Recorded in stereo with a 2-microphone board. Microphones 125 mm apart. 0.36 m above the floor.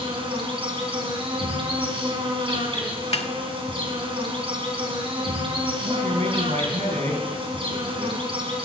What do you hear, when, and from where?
0.0 s an insect: 45° right (ahead or behind), 3.5 m
3.1 s a snare drum: 55° left (ahead or behind), 0.8 m
5.8 s a man speaking: 70° right (ahead or behind), 3.5 m